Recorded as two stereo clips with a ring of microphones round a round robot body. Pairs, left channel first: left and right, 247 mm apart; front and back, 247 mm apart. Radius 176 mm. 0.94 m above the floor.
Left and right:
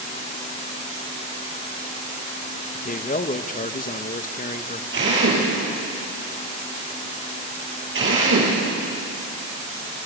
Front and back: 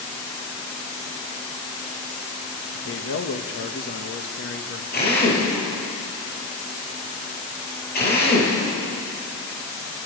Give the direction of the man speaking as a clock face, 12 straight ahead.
11 o'clock.